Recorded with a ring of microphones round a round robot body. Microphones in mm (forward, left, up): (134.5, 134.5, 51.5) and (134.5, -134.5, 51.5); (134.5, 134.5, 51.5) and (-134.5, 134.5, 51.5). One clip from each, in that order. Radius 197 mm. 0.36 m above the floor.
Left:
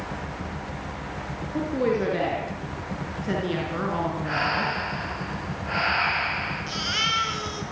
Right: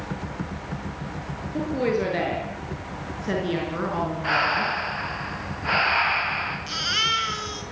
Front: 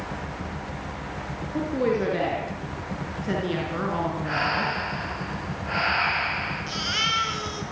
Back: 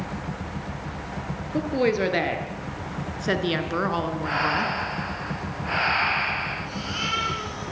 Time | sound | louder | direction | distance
1.5 | a woman speaking | even, back 2 dB | 160° right | 7 m
4.2 | breathing | right 4 dB, back 2 dB | 105° right | 7 m
6.7 | a baby crying | right 2 dB, front 3 dB | 40° right | 5 m